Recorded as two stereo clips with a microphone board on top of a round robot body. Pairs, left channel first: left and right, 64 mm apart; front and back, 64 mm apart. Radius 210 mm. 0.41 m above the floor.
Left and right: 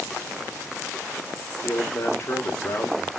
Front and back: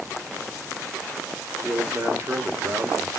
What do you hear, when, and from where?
1.6 s a man speaking: 130° left, 2 m